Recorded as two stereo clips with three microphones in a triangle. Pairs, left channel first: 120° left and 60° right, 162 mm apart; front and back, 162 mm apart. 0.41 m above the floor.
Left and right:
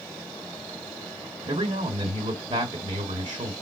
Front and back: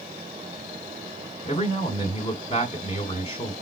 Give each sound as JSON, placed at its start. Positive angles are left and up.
{"t": 1.4, "sound": "a man speaking", "azimuth_deg": -25, "distance_m": 1.6}